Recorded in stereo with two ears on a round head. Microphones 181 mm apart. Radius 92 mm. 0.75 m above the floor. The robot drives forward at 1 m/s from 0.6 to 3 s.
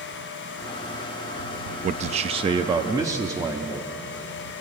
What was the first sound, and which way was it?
A man speaking, 35° right (ahead or behind).